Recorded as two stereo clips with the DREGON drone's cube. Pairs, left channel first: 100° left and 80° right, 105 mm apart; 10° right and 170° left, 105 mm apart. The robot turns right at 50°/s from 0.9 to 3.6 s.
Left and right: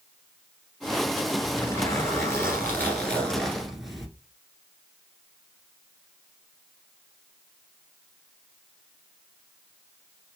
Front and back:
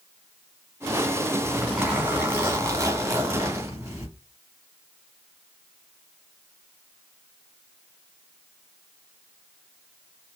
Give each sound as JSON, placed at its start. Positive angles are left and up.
{"t": 1.4, "sound": "a zipper", "azimuth_deg": 80, "distance_m": 1.8}